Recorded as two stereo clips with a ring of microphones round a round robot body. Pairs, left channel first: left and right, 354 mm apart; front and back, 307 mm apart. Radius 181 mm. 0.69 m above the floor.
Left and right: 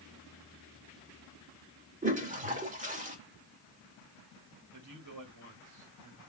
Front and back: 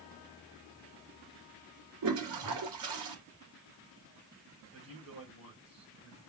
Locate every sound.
2.0 s a toilet flushing: 155° right, 2 m
4.7 s a man speaking: 130° right, 3 m